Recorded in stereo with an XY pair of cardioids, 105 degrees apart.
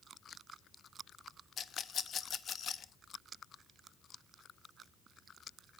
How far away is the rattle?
About 0.6 m.